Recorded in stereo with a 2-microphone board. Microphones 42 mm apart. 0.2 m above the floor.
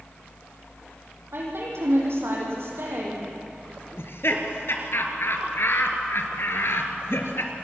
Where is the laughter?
65° left (ahead or behind), 3.5 m.